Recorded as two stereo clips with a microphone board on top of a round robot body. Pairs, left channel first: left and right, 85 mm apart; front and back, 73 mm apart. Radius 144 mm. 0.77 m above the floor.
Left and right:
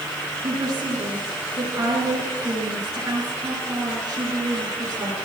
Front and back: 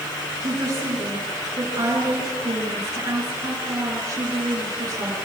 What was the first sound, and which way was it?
A woman speaking, 145° right.